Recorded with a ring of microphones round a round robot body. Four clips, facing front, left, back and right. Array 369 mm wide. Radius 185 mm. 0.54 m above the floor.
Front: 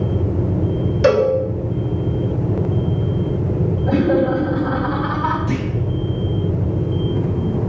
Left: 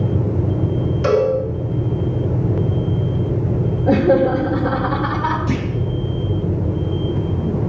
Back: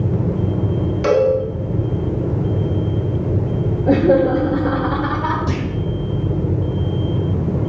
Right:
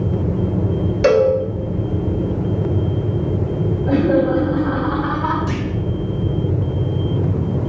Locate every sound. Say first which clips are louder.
1.0 s a cowbell: right 3 dB, front 1 dB; 50° right, 2.5 m
3.9 s laughter: left 2 dB, back 3 dB; 140° left, 2.5 m
5.5 s a clunk: left 1 dB, even; 165° right, 3 m